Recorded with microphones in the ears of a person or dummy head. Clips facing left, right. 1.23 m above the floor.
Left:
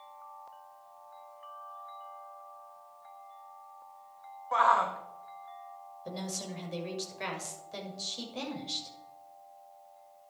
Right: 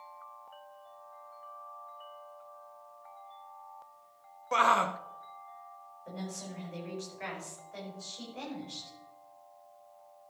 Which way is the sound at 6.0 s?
60° left (ahead or behind).